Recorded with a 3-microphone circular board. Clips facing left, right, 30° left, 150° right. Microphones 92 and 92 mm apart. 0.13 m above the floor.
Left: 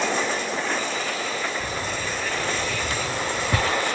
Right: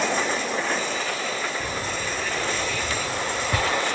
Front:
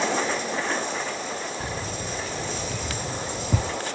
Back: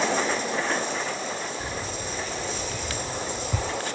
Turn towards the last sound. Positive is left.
turn(degrees=25)